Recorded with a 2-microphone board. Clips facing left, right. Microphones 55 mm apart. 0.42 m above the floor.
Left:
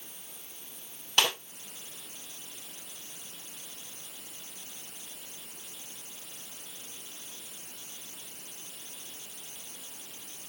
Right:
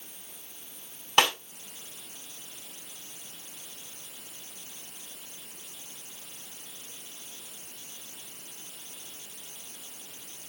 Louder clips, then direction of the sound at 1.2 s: Right 4 dB; 45° right (ahead or behind).